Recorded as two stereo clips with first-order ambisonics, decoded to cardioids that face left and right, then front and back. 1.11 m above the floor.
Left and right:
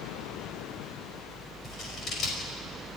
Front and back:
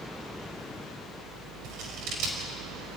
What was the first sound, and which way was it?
Scissors, 145° left.